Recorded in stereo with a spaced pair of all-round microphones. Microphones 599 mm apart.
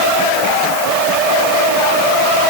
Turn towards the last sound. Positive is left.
No sound to turn to.